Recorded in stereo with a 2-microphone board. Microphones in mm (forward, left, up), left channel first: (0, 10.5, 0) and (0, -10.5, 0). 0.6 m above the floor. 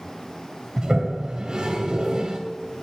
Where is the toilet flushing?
45° right (ahead or behind), 2.5 m.